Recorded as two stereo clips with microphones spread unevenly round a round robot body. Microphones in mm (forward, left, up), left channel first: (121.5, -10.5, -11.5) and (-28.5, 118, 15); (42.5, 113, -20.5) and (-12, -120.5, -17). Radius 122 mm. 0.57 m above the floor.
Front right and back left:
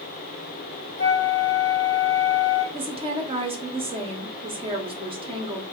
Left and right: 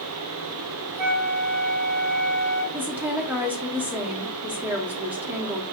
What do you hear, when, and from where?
1.0 s a flute: 100° right, 1.0 m
2.7 s a woman speaking: straight behind, 0.7 m